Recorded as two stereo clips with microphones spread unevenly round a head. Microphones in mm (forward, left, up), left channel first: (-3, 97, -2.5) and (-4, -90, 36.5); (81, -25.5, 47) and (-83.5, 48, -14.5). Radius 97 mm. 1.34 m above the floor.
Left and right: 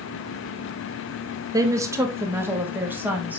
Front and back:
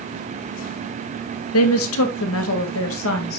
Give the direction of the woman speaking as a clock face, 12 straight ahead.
1 o'clock.